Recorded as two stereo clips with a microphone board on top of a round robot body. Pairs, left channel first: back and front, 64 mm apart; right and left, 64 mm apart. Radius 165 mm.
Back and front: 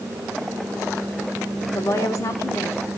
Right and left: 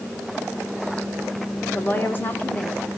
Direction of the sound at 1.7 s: 145° right.